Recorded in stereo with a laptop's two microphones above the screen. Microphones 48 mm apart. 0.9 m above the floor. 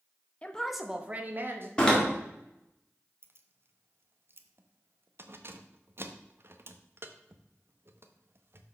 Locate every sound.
0.4 s a woman speaking: 25° left (ahead or behind), 0.8 m; by 1.7 s 50° right (ahead or behind), 1.4 m
1.8 s a door slam: 15° left (ahead or behind), 1.8 m
3.2 s keys jangling: 55° right (ahead or behind), 0.6 m